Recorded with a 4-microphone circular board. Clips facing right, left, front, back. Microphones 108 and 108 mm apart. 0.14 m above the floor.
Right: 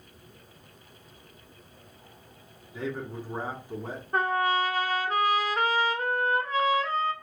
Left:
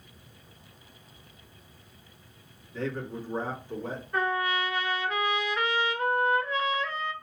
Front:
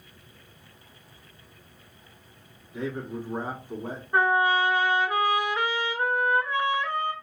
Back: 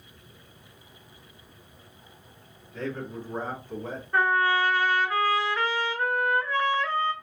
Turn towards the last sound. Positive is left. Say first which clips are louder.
# right 3 dB, front 1 dB
turn(degrees=-65)